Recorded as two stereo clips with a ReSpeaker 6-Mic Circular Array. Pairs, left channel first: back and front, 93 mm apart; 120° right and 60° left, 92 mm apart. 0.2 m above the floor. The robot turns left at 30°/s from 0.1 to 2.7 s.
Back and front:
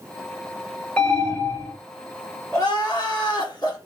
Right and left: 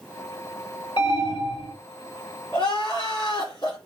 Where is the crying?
135° right, 1.8 m; by 3.8 s 140° right, 1.8 m.